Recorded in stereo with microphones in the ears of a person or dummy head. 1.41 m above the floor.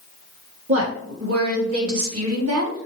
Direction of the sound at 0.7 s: 65° right (ahead or behind).